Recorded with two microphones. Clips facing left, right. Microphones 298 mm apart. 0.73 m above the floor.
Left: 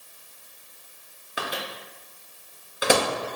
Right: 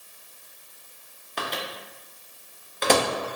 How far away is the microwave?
About 0.5 m.